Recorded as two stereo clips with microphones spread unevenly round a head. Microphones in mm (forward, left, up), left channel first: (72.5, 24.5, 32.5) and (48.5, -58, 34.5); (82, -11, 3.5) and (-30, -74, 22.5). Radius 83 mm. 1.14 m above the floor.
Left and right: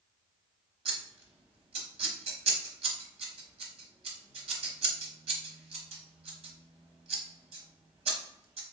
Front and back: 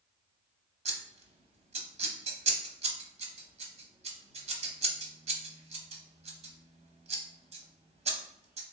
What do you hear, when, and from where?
0.8 s scissors: 115° right, 0.9 m